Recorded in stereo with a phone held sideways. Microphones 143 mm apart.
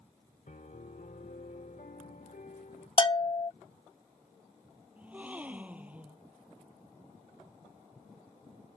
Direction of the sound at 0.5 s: 70° left (ahead or behind).